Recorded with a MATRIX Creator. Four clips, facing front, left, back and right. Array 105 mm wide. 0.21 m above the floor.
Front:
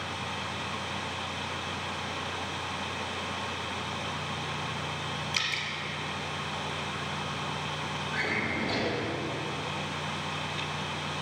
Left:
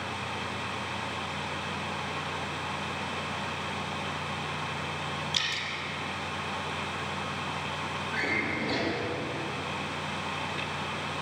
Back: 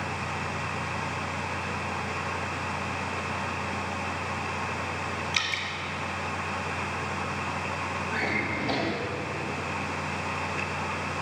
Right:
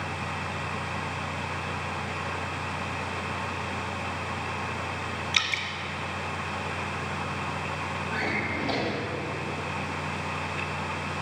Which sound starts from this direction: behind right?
A drawer, at 8.1 s.